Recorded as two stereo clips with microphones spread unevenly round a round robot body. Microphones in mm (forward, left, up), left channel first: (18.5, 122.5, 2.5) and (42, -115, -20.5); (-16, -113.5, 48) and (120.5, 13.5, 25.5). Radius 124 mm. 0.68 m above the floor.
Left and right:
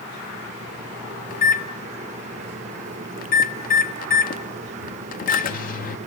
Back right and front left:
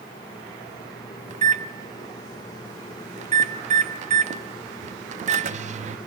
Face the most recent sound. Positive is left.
turn(degrees=50)